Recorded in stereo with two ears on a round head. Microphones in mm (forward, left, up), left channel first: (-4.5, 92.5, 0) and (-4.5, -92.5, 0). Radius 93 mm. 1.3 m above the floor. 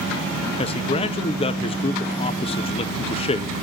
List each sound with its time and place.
0.6 s a man speaking: 30° left (ahead or behind), 0.7 m